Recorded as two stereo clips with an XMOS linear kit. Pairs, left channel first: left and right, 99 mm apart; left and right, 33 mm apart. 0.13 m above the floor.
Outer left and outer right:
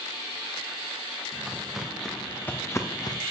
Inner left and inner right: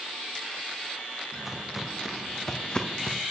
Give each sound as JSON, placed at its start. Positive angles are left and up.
{"t": 1.3, "sound": "footsteps", "side_deg": -15, "distance_m": 2.5}